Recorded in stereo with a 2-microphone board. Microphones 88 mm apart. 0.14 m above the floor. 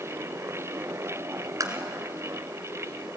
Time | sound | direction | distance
1.6 | tapping | 40° right (ahead or behind) | 1.9 m